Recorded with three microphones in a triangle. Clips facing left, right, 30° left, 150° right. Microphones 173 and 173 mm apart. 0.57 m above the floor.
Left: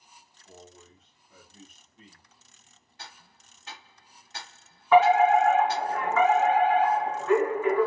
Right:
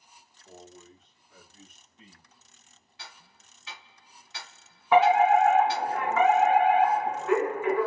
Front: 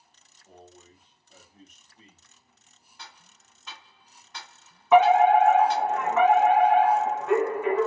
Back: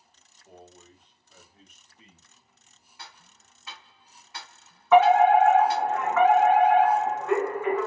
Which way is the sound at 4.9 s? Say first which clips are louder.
Left 1 dB, even; 35° right.